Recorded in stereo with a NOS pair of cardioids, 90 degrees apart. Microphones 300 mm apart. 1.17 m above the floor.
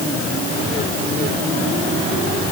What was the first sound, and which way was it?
Only background noise.